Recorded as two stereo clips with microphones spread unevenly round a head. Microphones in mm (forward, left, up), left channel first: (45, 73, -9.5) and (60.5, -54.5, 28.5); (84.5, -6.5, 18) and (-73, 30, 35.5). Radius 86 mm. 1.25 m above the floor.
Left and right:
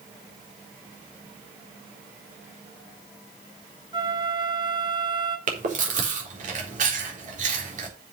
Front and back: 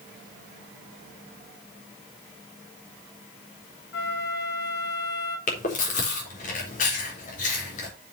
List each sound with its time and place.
3.9 s a flute: 25° right, 1.9 m
5.5 s chewing: 60° right, 4 m